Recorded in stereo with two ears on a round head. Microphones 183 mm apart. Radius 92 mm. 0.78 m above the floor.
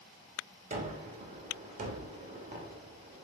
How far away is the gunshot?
About 0.9 m.